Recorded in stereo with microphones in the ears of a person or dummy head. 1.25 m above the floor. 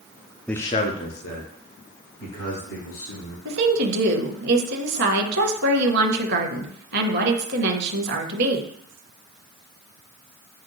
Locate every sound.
0.5 s a man speaking: 5° left (ahead or behind), 0.5 m; by 3.4 s 70° left (ahead or behind), 3 m
3.5 s a woman speaking: 60° right (ahead or behind), 0.7 m